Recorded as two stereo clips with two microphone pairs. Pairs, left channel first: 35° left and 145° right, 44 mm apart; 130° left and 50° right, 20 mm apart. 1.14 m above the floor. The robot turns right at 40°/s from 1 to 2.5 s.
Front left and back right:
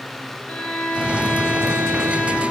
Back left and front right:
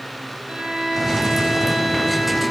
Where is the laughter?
I don't hear laughter.